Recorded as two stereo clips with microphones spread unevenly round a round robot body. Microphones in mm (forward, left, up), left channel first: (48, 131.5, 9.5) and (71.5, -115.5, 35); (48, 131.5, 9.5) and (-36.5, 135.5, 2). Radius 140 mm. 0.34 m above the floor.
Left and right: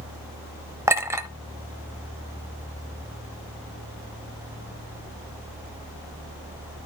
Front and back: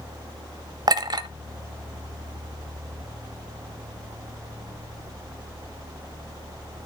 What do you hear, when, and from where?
0.9 s a clink: 165° right, 0.7 m